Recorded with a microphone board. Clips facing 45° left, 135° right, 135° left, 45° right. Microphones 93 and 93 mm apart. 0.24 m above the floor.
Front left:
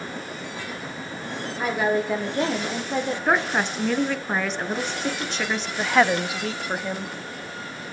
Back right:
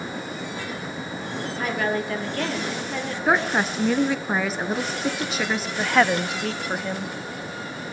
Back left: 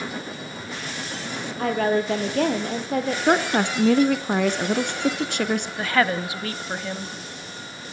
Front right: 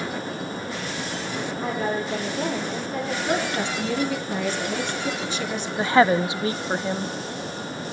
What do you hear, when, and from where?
1.6 s a woman speaking: 125° left, 5 m; by 3.2 s 110° left, 5.5 m
3.3 s a woman speaking: 140° left, 2 m
5.8 s a woman speaking: 40° right, 0.9 m